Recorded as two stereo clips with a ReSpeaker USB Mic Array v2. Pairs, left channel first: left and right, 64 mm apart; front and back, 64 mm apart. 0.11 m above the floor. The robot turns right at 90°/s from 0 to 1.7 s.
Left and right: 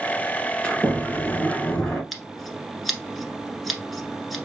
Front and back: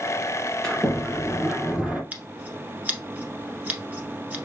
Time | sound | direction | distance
0.6 | a sliding door | 60° left | 1.6 m
2.1 | scissors | straight behind | 1.2 m